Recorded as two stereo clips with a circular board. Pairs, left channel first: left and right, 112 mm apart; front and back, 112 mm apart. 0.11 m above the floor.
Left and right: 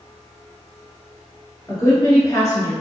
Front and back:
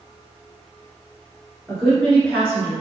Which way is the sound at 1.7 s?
80° left.